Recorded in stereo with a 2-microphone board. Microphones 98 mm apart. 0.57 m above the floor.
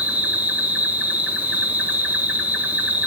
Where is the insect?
15° right (ahead or behind), 1.6 m.